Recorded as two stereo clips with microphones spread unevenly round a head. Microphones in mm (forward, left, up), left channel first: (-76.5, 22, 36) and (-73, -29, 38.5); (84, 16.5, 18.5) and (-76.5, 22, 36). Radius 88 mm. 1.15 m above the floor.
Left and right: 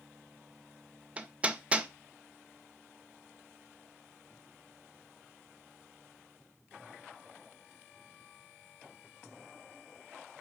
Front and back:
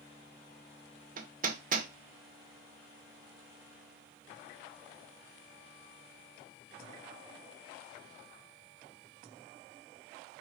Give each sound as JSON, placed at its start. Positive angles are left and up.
{"t": 1.2, "sound": "hammering", "azimuth_deg": -150, "distance_m": 0.5}